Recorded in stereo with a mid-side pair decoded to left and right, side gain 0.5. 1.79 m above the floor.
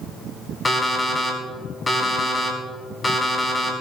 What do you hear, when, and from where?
0.7 s an alarm clock: 25° left, 5 m